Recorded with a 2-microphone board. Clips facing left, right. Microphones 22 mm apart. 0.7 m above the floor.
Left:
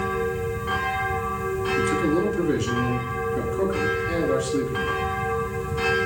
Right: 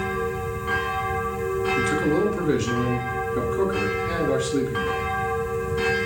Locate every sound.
1.8 s a man speaking: 70° right (ahead or behind), 6 m